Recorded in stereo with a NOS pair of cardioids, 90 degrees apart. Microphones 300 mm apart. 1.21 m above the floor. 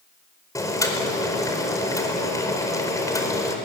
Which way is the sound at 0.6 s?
10° left.